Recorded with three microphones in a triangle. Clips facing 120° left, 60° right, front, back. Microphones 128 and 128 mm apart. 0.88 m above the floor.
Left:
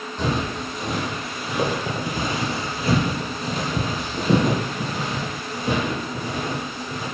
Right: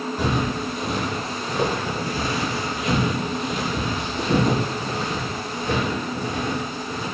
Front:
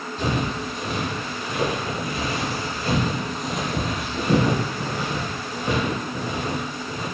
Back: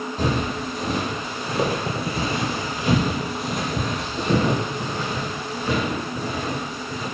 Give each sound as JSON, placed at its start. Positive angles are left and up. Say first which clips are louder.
{"t": 0.2, "sound": "footsteps", "louder": "even, back 1 dB", "azimuth_deg": -140, "distance_m": 1.5}